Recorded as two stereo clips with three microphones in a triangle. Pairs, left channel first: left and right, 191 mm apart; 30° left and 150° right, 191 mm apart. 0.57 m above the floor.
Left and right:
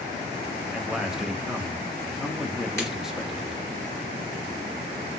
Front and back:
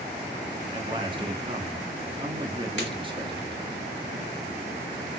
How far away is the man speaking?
About 0.6 m.